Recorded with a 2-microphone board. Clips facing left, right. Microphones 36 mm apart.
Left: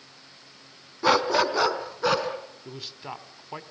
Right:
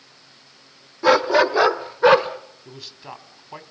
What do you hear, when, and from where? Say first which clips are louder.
1.0 s a dog barking: right 5 dB; 5° right (ahead or behind), 1.2 m; by 2.3 s 35° right (ahead or behind), 1.5 m
2.6 s a man speaking: left 1 dB; 10° left (ahead or behind), 1.6 m